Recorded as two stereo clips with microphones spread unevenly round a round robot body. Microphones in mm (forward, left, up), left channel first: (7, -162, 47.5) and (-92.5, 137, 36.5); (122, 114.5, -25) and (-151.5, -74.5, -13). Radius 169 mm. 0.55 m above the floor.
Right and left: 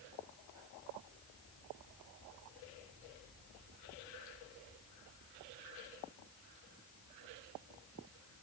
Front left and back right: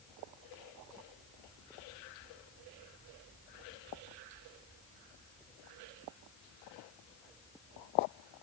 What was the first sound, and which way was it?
Only background noise.